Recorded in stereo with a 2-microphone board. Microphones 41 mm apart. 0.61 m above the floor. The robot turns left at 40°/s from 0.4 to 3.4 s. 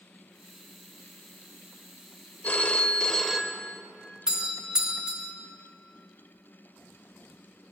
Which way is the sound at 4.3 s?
20° right (ahead or behind).